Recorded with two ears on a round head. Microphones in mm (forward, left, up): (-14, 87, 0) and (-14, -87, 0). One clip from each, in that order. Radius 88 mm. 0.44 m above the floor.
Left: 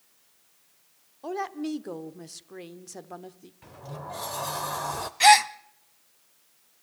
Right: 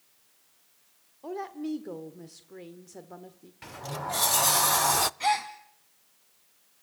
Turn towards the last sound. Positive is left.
turn(degrees=65)  # may be behind; listen again after turning